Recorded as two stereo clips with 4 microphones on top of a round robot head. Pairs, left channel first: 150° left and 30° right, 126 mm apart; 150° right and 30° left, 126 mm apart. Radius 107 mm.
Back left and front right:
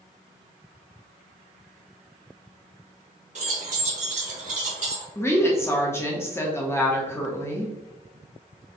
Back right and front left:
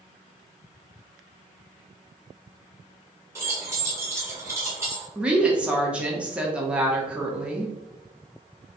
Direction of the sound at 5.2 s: 100° left.